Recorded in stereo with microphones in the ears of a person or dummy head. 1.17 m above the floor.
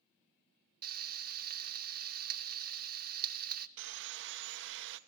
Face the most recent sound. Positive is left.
turn(degrees=-65)  # may be behind; listen again after turning